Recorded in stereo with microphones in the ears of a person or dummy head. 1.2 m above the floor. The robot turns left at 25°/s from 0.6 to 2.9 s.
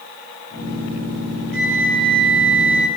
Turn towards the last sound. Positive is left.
turn(degrees=-100)